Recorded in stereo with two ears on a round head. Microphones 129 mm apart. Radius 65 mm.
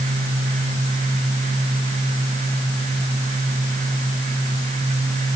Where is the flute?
I don't hear a flute.